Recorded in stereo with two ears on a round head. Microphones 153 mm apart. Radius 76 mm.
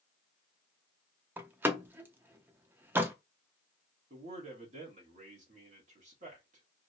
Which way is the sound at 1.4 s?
15° right (ahead or behind).